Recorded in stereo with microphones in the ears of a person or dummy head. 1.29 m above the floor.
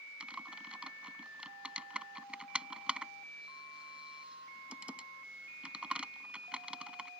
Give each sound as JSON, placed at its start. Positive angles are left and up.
{"t": 0.2, "sound": "typing on a keyboard", "side_deg": -5}